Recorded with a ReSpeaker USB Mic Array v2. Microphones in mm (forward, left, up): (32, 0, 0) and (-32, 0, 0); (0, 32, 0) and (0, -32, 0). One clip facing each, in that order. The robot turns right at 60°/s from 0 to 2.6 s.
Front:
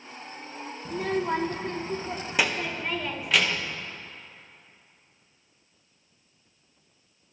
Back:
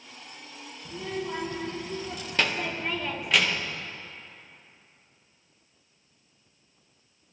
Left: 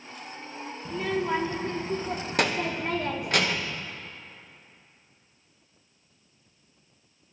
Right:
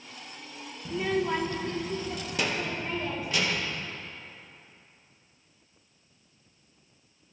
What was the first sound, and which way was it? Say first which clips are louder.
A child speaking: front 6 dB, even; 15° right.